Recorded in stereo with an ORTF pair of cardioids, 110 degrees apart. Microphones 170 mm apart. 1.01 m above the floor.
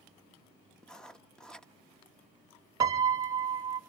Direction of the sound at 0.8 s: 5° left.